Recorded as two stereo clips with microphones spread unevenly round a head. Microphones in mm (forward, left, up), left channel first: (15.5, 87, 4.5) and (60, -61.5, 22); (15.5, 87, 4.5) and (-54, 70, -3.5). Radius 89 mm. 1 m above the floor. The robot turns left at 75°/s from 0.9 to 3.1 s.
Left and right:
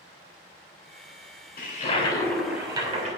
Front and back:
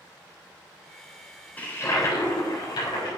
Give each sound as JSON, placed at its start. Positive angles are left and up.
{"t": 1.6, "sound": "a toilet flushing", "azimuth_deg": 80, "distance_m": 3.5}